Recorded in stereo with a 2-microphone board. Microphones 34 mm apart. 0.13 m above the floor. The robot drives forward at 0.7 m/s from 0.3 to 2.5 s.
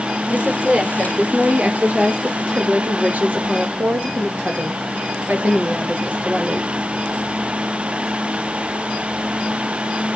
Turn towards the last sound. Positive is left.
turn(degrees=-50)  # may be behind; listen again after turning